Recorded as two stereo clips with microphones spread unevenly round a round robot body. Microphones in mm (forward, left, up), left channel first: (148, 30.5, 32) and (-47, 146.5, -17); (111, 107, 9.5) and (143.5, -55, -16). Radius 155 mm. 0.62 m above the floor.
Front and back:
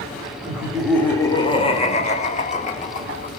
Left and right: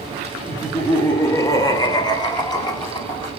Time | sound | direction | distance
0.5 | laughter | 155° right | 0.8 m